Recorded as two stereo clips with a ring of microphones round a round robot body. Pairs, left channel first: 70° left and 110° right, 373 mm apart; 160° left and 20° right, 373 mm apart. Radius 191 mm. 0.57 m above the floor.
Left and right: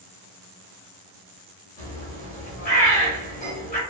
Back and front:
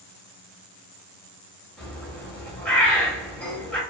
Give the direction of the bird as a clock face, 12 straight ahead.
9 o'clock.